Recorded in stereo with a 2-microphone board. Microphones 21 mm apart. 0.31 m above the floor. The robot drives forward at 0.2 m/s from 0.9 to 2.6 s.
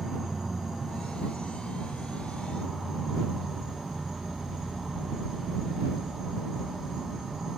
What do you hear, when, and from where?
0.0 s an insect: 10° right (ahead or behind), 2 m